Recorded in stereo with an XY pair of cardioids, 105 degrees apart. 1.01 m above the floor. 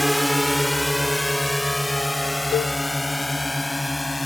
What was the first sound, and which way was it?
A drone, 5° left.